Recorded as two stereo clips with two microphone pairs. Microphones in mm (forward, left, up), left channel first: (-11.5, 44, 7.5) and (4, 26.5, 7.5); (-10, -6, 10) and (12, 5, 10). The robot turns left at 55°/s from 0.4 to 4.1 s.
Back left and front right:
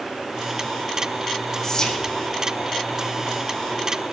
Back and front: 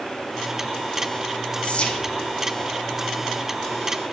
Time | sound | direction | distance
1.6 | whispering | 170° right | 1.0 m